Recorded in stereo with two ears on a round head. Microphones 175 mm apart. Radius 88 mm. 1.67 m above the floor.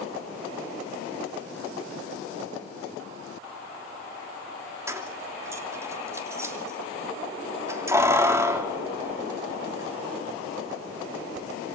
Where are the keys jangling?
15° right (ahead or behind), 2.5 m.